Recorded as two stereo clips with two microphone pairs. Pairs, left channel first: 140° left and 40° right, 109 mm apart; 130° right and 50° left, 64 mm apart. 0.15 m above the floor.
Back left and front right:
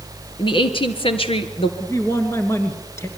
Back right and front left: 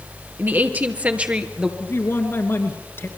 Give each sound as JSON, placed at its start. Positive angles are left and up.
{"t": 0.4, "sound": "a woman speaking", "azimuth_deg": 105, "distance_m": 2.5}
{"t": 1.8, "sound": "a man speaking", "azimuth_deg": -165, "distance_m": 2.5}